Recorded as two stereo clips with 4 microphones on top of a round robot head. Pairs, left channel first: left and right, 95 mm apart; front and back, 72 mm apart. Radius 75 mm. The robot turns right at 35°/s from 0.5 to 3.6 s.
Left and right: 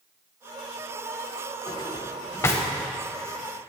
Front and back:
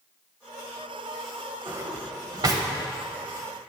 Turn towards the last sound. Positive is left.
turn(degrees=-170)